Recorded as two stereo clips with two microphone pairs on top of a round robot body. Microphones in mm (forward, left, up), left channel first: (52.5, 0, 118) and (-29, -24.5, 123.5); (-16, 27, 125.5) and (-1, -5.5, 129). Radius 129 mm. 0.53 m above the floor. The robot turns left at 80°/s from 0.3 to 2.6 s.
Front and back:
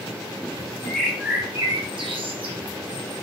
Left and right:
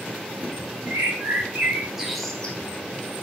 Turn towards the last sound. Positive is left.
turn(degrees=170)